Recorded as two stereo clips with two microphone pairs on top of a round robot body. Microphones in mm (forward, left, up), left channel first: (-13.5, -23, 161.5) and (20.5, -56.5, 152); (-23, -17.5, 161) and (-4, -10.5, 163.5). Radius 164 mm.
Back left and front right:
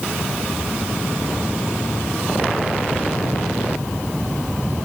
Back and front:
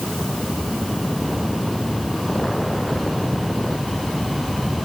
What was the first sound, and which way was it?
Only background noise.